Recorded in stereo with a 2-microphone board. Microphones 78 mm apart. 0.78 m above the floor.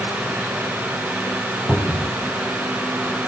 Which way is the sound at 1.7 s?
Centre (ahead or behind).